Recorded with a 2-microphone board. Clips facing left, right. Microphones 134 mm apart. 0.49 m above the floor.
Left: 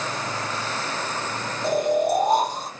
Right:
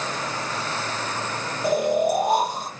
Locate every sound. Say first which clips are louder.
1.6 s snoring: even; 10° right (ahead or behind), 2.5 m